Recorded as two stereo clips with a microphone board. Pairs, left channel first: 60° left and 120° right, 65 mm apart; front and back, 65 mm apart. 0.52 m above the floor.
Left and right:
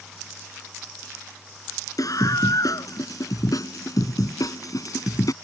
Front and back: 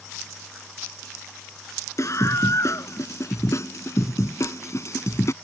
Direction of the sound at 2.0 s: 40° left.